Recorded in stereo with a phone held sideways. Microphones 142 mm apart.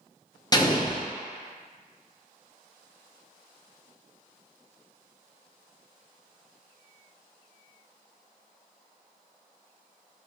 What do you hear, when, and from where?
0.5 s an explosion: 25° left (ahead or behind), 0.5 m